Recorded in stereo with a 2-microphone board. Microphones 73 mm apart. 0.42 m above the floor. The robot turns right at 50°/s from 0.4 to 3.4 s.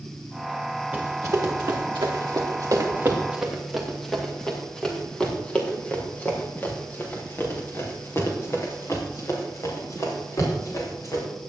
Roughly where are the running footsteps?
Right.